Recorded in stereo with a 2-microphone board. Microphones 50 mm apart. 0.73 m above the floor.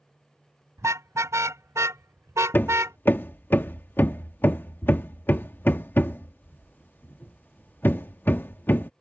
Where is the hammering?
40° left (ahead or behind).